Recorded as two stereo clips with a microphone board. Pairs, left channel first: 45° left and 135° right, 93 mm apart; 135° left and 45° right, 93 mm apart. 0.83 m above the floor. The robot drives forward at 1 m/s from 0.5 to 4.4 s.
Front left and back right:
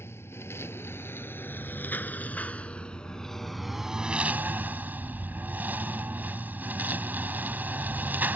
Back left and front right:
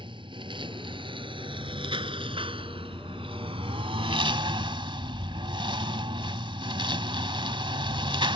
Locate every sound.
0.0 s a lawn mower: 20° right; by 8.4 s 65° right